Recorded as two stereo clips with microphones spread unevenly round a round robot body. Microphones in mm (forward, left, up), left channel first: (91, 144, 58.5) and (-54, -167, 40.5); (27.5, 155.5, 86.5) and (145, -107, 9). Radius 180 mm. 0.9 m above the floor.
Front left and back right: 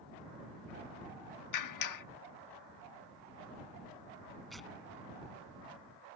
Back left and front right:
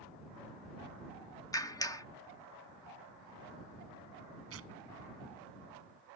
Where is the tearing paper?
25° right.